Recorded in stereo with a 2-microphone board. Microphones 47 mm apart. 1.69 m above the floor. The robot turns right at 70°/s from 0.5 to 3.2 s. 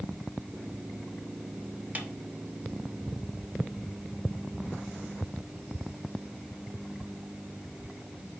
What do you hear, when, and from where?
1.9 s a snare drum: 35° right (ahead or behind), 1.0 m; by 2.1 s 45° right (ahead or behind), 1.0 m